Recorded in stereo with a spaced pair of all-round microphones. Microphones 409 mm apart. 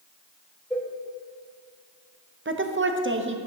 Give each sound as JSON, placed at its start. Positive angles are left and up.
{"t": 0.7, "sound": "a cowbell", "side_deg": 5, "distance_m": 1.3}
{"t": 2.5, "sound": "a woman speaking", "side_deg": -30, "distance_m": 0.6}